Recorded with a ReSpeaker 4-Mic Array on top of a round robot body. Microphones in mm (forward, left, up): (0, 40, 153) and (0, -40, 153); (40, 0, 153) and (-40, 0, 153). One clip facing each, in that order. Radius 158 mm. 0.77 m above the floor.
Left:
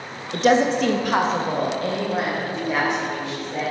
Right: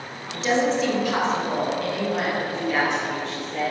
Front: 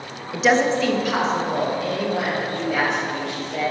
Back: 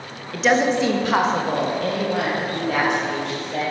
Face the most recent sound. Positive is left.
turn(degrees=160)